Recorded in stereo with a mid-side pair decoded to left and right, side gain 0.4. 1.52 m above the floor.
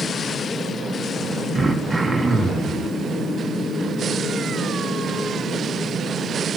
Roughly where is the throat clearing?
Ahead.